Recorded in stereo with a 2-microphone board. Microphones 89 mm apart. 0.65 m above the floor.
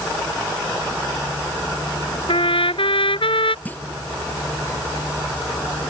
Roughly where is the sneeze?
No sneeze in this recording.